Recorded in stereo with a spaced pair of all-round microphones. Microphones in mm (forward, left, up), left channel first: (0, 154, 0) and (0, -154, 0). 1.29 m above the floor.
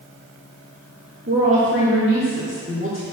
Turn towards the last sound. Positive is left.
turn(degrees=-40)  # may be behind; listen again after turning